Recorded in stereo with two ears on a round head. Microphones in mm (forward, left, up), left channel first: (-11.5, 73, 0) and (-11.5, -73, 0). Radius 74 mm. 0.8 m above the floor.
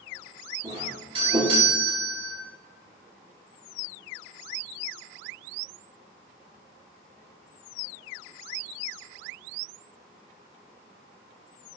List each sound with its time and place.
0.6 s a doorbell: 30° right (ahead or behind), 1.6 m